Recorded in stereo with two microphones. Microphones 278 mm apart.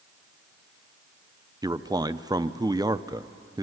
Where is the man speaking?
15° right (ahead or behind), 0.5 m.